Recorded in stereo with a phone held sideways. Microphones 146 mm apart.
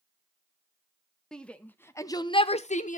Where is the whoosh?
I don't hear a whoosh.